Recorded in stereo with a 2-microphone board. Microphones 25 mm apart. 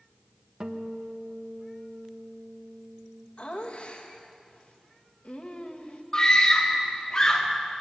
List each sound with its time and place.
0.6 s a guitar: 35° right (ahead or behind), 1.2 m
3.4 s laughter: 45° left (ahead or behind), 2 m
6.1 s a scream: 30° left (ahead or behind), 4 m